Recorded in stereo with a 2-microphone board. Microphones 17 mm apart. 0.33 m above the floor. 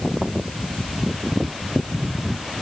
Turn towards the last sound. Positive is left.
No sound to turn to.